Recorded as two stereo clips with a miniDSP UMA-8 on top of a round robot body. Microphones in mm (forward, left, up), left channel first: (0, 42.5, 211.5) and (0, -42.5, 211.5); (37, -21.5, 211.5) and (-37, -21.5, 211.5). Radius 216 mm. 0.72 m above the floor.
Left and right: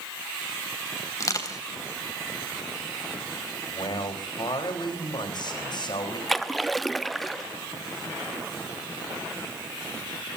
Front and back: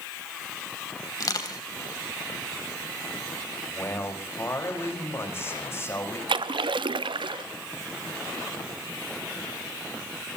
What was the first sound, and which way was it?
Crushing, 40° left.